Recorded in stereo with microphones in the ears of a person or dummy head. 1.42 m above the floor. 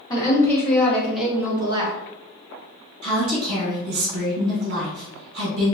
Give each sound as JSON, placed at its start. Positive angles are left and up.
{"t": 0.1, "sound": "a woman speaking", "side_deg": 25, "distance_m": 1.4}
{"t": 3.0, "sound": "a woman speaking", "side_deg": -55, "distance_m": 1.4}